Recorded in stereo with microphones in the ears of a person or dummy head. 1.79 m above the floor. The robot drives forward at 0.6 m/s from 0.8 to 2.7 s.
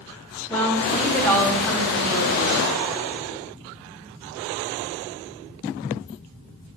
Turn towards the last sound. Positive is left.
turn(degrees=10)  # may be behind; listen again after turning